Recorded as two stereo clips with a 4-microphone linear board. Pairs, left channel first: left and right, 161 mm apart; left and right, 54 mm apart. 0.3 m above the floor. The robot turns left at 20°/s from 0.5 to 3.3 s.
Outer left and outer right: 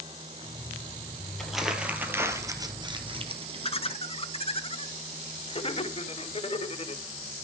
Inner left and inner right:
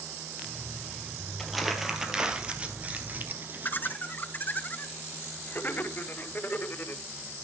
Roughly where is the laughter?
Left.